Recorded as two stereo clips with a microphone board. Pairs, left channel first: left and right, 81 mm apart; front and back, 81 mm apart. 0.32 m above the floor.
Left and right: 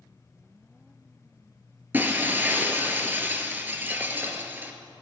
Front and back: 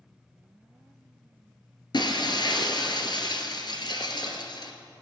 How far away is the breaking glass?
About 1.2 m.